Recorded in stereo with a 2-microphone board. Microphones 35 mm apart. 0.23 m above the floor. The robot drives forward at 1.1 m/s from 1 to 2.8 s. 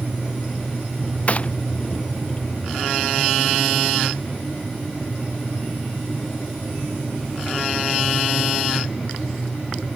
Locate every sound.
1.3 s a gunshot: 40° left (ahead or behind)